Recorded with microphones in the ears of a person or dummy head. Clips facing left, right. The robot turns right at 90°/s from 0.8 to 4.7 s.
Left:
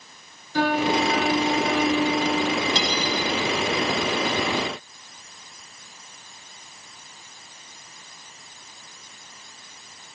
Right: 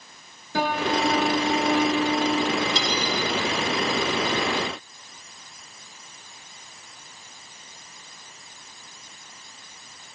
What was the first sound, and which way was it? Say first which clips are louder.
A piano: left 3 dB; 70° right.